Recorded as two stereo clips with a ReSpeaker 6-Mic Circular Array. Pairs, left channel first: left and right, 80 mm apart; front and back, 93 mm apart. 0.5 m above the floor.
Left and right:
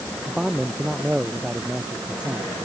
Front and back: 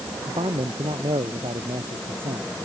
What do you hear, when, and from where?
0.3 s a man speaking: 170° right